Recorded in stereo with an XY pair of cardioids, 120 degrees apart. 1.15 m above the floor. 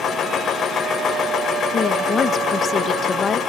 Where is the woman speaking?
35° left, 0.8 m.